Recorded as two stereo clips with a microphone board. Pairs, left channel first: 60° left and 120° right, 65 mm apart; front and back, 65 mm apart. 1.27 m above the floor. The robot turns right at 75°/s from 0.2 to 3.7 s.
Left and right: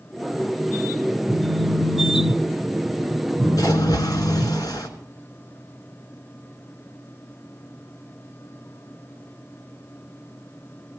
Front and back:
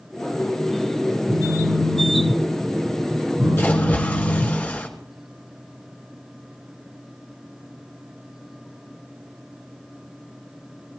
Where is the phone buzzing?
20° right, 3 m; by 4.6 s 160° left, 3 m.